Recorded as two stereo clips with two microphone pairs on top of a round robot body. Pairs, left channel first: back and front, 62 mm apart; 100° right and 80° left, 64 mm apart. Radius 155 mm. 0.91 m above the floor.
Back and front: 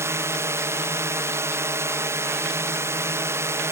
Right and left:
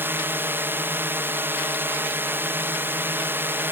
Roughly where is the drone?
Ahead left.